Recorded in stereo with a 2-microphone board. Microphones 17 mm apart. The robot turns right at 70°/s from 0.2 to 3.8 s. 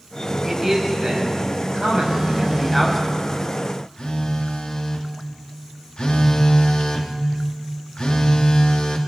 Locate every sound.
0.4 s a man speaking: straight behind, 6 m; by 3.0 s straight ahead, 6 m
2.0 s a phone buzzing: 60° right, 2 m; by 9.0 s 65° left, 2 m